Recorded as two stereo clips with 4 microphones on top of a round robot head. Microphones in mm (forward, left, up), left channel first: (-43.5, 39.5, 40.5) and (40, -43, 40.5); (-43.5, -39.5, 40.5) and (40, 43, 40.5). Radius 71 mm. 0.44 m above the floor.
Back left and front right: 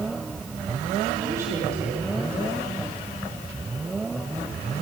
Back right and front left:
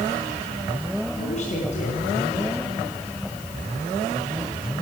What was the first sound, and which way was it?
A woman speaking, 110° right.